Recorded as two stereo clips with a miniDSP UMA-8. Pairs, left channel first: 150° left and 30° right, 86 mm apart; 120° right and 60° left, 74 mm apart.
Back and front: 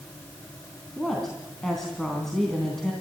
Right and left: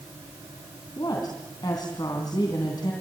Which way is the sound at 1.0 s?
125° right.